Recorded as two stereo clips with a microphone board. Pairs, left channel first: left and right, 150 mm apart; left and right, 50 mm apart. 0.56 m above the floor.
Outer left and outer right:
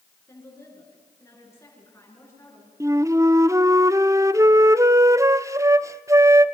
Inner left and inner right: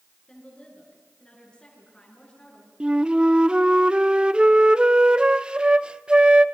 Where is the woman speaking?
15° left (ahead or behind), 8.5 m.